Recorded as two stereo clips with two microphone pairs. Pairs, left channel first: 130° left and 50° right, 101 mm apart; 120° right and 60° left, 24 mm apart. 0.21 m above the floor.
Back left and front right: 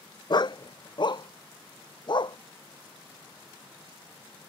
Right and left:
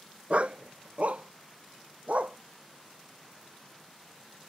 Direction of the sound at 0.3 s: 95° left.